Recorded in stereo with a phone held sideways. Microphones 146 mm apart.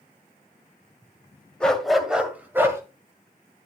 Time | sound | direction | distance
1.6 | a dog barking | 5° left (ahead or behind) | 1.8 m